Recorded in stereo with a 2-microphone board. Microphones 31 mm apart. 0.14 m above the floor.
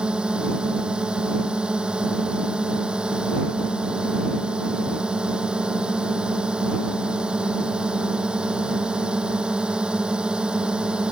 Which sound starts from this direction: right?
A drone, at 0.0 s.